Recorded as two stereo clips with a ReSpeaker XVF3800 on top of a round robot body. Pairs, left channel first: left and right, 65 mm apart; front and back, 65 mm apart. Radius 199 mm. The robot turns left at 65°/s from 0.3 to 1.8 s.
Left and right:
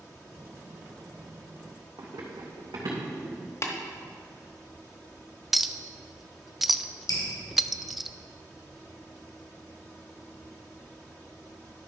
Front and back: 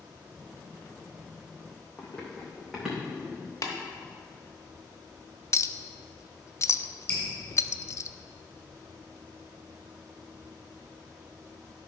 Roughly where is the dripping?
Left.